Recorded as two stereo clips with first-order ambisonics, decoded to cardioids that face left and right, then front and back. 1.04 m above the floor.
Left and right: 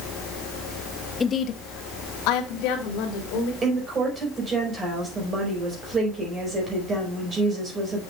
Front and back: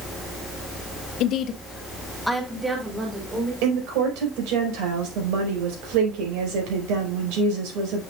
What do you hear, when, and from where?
1.2 s a woman speaking: 20° left, 0.9 m; by 3.5 s 105° left, 3 m
3.6 s a woman speaking: 160° right, 4.5 m